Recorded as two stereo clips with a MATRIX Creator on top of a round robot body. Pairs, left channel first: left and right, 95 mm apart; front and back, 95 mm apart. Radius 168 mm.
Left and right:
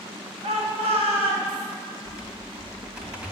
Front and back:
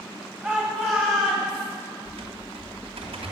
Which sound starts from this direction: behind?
Typing on a keyboard, at 2.0 s.